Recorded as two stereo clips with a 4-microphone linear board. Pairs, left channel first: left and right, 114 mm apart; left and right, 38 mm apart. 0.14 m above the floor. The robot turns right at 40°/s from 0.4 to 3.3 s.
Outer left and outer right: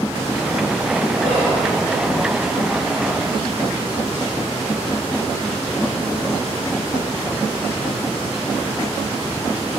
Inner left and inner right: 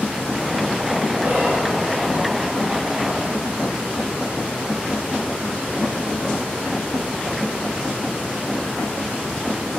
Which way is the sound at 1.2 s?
50° right (ahead or behind).